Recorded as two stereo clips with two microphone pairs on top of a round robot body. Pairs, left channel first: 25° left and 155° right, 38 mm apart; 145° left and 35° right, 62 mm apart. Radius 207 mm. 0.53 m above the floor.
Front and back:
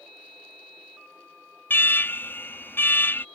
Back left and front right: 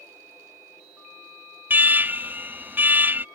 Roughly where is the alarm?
Ahead.